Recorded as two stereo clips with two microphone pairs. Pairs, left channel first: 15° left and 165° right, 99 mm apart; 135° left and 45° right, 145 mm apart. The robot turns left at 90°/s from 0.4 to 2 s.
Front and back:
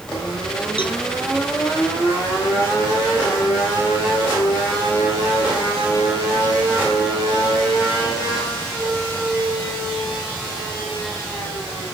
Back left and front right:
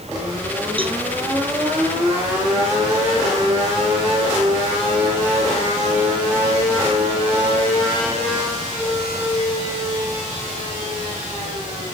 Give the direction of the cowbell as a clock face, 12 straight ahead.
12 o'clock.